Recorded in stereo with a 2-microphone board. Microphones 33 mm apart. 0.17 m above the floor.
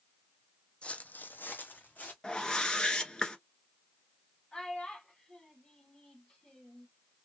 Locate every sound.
0.8 s footsteps: 35° left (ahead or behind), 0.6 m; by 2.1 s 55° left (ahead or behind), 1.0 m
2.2 s a whoosh: 20° left (ahead or behind), 0.8 m
4.5 s a child speaking: 20° left (ahead or behind), 1.0 m